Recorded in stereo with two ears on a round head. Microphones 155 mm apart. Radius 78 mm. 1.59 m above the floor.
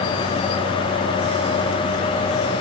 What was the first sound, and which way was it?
Only background noise.